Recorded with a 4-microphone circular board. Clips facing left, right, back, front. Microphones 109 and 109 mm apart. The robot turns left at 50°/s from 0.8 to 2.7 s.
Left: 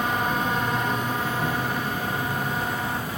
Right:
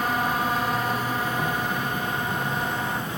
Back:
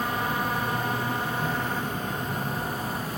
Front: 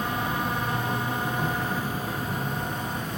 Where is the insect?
10° right, 0.7 m; by 3.2 s 105° right, 0.7 m.